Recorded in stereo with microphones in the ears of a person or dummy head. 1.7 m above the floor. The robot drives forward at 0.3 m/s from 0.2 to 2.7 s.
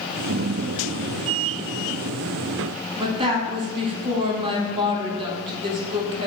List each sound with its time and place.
3.0 s a woman speaking: 25° right (ahead or behind), 0.7 m